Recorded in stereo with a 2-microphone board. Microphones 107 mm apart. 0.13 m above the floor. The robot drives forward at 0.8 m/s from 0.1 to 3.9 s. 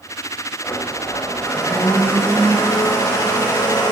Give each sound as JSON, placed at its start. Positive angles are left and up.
{"t": 0.6, "sound": "a blender", "side_deg": 25, "distance_m": 7.0}